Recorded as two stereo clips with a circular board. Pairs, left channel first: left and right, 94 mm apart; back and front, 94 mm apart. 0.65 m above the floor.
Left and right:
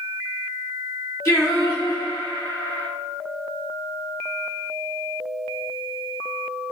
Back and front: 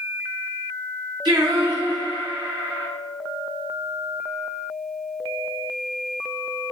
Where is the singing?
35° left, 1.3 m.